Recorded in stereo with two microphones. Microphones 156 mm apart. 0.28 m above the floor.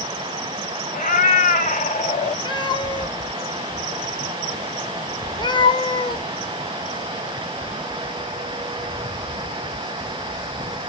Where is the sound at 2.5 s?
30° left (ahead or behind), 0.6 m.